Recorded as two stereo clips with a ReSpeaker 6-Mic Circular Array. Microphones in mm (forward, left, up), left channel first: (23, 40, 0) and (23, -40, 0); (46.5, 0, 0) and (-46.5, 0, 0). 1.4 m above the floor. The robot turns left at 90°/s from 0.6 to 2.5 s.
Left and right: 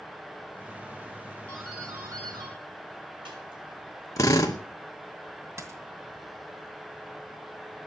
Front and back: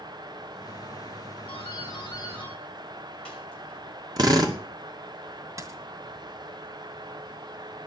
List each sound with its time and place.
1.5 s a doorbell: 15° left, 7.5 m; by 3.8 s 80° right, 7.5 m
4.2 s a drill: 135° left, 2 m
5.6 s a dropped coin: 135° right, 2 m